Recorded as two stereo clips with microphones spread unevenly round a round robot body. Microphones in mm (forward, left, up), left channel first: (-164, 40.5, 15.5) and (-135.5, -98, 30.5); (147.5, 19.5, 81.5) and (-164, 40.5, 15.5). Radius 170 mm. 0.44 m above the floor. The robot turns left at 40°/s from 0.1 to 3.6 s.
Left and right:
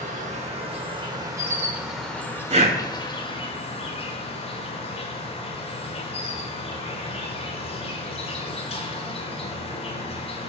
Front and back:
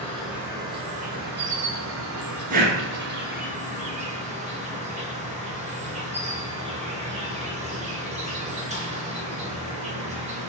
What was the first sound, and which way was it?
An insect, 95° right.